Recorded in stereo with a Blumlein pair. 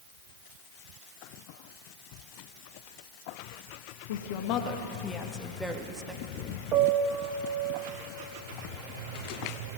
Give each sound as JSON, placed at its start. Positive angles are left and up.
{"t": 4.1, "sound": "a woman speaking", "azimuth_deg": 60, "distance_m": 2.0}
{"t": 6.7, "sound": "a piano", "azimuth_deg": -35, "distance_m": 2.0}